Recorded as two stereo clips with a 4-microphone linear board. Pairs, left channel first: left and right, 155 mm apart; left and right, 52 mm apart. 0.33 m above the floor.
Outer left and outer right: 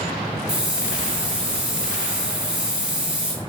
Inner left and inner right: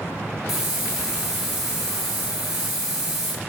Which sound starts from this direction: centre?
A hiss, at 0.5 s.